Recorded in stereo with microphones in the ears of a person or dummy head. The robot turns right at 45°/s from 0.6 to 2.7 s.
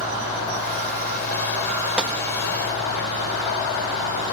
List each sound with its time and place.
2.0 s a gunshot: 5° right (ahead or behind), 1.6 m; by 2.2 s 10° right (ahead or behind), 1.6 m